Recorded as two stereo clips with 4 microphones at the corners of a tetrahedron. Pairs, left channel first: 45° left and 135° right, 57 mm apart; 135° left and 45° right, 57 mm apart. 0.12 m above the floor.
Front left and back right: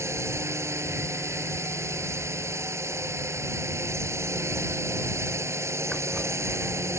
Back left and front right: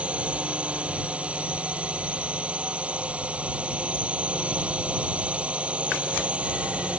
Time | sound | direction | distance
0.0 | a drone | 110° right | ?